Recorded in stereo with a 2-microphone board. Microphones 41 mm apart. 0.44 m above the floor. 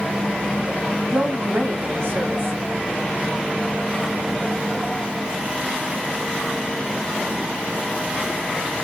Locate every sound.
1.0 s a woman speaking: 65° right (ahead or behind), 2.5 m